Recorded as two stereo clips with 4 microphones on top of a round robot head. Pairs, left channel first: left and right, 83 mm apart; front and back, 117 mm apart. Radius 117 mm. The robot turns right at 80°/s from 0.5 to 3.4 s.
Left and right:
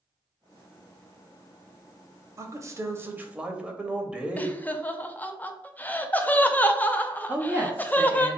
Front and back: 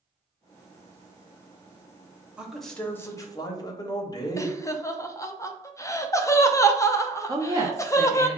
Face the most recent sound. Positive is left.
turn(degrees=-145)